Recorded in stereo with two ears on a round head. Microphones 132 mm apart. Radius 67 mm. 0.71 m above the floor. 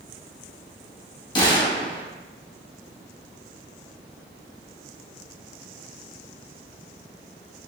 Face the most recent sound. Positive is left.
turn(degrees=30)  # may be behind; listen again after turning